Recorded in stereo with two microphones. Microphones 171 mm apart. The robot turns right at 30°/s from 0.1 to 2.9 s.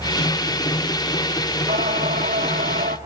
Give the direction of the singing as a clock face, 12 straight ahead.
4 o'clock.